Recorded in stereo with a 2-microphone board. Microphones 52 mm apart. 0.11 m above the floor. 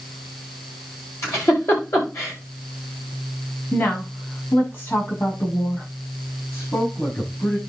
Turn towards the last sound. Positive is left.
turn(degrees=55)  # may be behind; listen again after turning